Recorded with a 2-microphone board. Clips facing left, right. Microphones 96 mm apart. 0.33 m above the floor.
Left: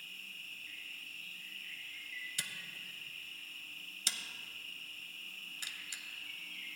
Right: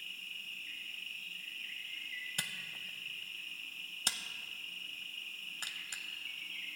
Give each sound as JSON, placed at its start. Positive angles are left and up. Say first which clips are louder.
{"t": 0.0, "sound": "an insect", "louder": "right 2 dB", "side_deg": 15, "distance_m": 3.5}
{"t": 2.4, "sound": "a camera shutter", "louder": "right 3 dB", "side_deg": -50, "distance_m": 0.6}